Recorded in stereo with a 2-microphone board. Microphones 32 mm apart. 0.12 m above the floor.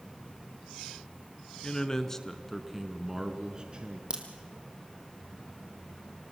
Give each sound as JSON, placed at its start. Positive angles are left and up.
{"t": 1.6, "sound": "a man speaking", "side_deg": 25, "distance_m": 1.2}
{"t": 4.1, "sound": "a crack", "side_deg": -30, "distance_m": 2.5}